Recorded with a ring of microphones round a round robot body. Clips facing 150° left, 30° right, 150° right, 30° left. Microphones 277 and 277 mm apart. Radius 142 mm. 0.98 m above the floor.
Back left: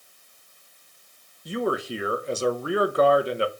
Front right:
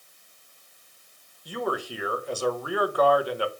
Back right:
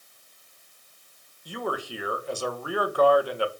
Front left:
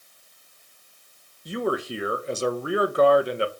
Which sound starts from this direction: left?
A man speaking, at 1.4 s.